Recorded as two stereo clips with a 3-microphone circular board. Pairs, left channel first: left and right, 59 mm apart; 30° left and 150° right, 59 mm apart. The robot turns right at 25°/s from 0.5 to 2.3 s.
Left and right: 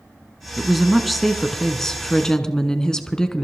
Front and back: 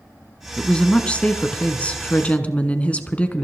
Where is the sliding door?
No sliding door in this recording.